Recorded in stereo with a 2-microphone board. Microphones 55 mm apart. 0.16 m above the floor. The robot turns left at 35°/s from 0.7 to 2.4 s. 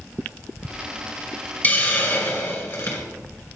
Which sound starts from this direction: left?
A hiss, at 1.6 s.